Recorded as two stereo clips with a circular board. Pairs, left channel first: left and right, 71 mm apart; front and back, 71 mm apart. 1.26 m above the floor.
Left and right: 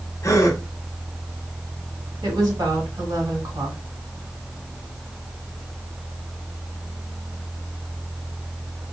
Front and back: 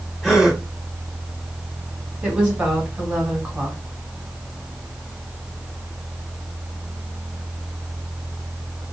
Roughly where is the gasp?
Left.